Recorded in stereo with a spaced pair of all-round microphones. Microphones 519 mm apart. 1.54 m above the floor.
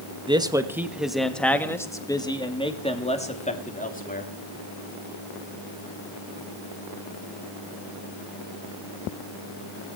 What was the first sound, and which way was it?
A man speaking, 10° right (ahead or behind).